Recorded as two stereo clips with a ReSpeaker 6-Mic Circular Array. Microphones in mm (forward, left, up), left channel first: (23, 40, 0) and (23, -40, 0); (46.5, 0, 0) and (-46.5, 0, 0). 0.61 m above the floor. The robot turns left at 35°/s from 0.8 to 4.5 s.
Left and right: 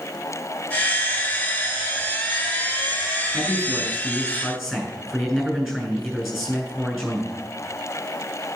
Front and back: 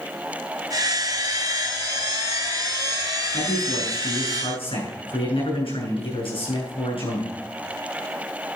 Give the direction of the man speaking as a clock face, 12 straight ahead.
11 o'clock.